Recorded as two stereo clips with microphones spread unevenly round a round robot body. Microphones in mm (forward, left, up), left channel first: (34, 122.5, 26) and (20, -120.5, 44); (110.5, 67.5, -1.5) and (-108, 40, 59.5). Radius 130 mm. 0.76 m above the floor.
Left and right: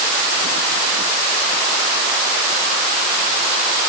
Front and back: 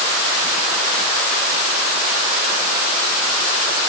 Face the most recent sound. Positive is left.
No sound to turn to.